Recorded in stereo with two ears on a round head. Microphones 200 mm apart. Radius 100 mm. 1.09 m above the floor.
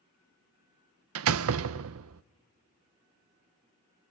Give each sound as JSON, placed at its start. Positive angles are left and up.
{"t": 1.1, "sound": "a door slam", "side_deg": -65, "distance_m": 0.5}